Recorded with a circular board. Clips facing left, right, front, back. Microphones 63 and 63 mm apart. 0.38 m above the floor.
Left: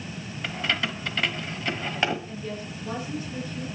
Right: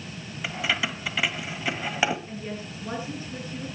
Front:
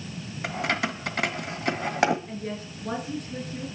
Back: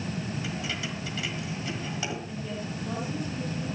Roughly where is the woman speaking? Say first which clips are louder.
Left 1 dB, even; ahead right.